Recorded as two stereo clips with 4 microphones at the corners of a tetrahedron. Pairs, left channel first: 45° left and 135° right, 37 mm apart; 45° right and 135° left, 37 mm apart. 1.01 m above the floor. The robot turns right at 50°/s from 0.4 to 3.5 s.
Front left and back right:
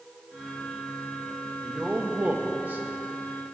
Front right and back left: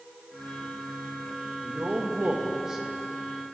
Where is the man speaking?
160° left, 1.3 m; by 2.9 s 135° right, 1.3 m.